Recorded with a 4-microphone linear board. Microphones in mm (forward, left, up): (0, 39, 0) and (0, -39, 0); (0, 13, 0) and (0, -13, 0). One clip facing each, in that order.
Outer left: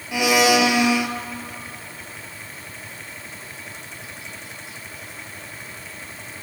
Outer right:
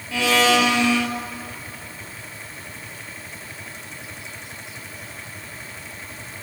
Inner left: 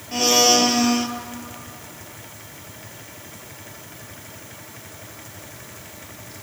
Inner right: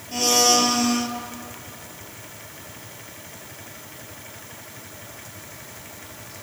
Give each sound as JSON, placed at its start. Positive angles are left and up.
{"t": 0.1, "sound": "a blender", "side_deg": 15, "distance_m": 0.5}